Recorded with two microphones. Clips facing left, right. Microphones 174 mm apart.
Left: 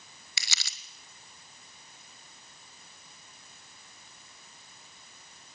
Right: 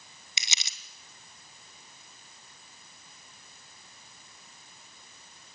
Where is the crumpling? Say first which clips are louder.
Right 1 dB; 20° right (ahead or behind), 1.3 m.